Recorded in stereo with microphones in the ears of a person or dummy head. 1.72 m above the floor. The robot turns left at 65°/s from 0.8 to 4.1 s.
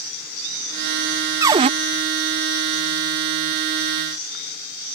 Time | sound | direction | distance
1.4 | a cupboard door | 10° right (ahead or behind) | ?